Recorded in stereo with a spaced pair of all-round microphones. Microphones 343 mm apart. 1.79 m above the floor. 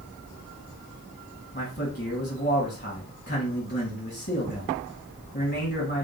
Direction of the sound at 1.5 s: 30° left (ahead or behind).